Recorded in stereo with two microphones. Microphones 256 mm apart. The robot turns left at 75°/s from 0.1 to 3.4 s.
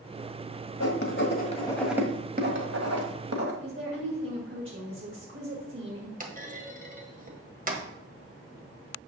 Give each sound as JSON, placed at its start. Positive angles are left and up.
{"t": 0.8, "sound": "writing", "side_deg": 70, "distance_m": 1.7}
{"t": 3.6, "sound": "a woman speaking", "side_deg": -50, "distance_m": 2.5}
{"t": 6.2, "sound": "a clunk", "side_deg": -30, "distance_m": 1.5}